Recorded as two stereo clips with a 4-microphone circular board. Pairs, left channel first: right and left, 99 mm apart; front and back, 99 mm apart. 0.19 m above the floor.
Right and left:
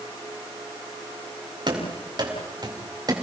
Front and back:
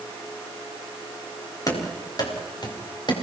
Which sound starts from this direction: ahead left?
Running footsteps, at 1.7 s.